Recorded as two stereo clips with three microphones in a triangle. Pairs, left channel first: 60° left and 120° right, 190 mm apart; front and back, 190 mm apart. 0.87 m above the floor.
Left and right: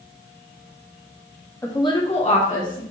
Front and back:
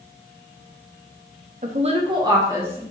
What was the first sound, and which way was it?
A woman speaking, 135° left.